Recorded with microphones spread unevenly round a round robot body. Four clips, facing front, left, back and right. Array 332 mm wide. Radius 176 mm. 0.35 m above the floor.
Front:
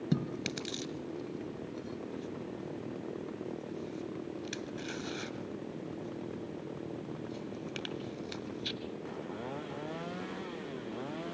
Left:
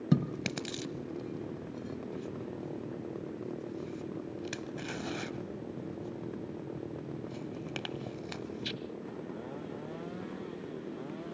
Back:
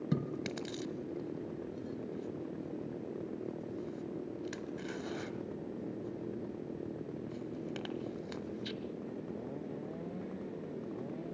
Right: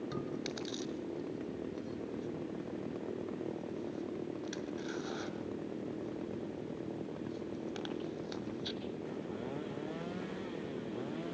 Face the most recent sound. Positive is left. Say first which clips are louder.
# left 7 dB, front 2 dB
turn(degrees=70)